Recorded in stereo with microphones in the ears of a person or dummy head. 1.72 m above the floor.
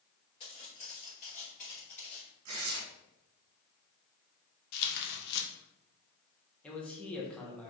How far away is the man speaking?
About 1.0 m.